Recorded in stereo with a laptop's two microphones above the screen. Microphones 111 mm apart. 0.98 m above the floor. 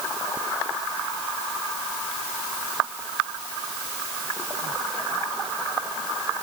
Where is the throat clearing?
No throat clearing in this recording.